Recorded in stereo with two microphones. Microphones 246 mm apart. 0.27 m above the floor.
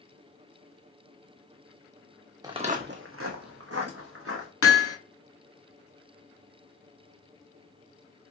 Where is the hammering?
65° left (ahead or behind), 0.7 m.